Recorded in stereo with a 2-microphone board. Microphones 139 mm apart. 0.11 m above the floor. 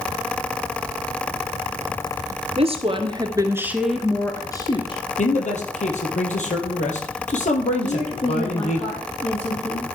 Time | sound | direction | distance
2.6 | a woman speaking | 45° right (ahead or behind) | 1.7 m
5.2 | a man speaking | 60° left (ahead or behind) | 2.5 m
7.8 | a woman speaking | 50° left (ahead or behind) | 4 m